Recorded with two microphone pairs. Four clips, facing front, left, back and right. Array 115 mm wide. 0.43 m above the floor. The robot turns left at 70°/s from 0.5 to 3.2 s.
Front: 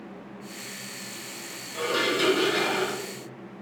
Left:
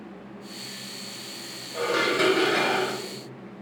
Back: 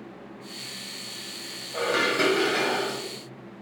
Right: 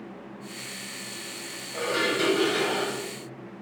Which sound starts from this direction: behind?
Dishes clattering, at 1.7 s.